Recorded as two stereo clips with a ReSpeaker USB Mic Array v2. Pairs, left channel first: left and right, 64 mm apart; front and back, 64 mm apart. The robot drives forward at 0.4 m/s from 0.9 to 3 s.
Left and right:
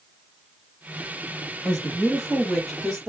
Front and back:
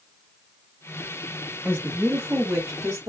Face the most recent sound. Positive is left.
turn(degrees=-175)